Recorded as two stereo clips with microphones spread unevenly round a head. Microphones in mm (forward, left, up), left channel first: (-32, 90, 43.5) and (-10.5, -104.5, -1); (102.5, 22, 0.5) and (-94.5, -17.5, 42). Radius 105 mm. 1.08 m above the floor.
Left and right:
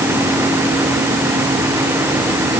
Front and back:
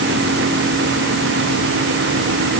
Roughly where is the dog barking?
No dog barking in this recording.